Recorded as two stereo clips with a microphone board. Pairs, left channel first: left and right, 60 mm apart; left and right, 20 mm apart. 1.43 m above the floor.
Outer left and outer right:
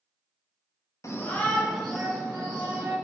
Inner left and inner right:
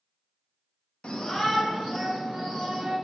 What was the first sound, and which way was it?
A shout, 55° left (ahead or behind).